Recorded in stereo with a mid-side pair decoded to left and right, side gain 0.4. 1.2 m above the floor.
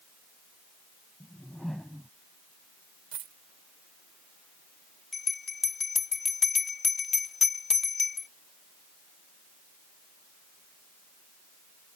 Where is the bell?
40° left.